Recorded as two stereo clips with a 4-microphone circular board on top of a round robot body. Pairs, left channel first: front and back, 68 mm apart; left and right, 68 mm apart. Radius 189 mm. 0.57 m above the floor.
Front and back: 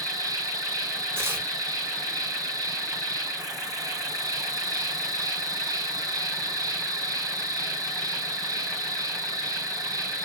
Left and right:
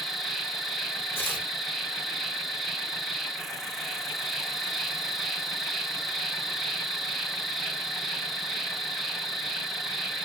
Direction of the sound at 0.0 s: 175° right.